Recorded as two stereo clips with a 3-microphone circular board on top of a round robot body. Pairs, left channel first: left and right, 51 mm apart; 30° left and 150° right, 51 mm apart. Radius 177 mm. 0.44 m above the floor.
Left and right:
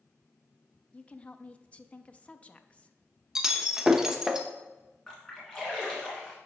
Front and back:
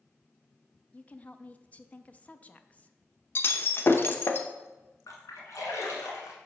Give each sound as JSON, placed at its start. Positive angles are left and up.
{"t": 0.9, "sound": "a woman speaking", "azimuth_deg": 55, "distance_m": 0.7}
{"t": 3.4, "sound": "breaking glass", "azimuth_deg": -10, "distance_m": 0.8}
{"t": 5.1, "sound": "a splash", "azimuth_deg": 10, "distance_m": 1.4}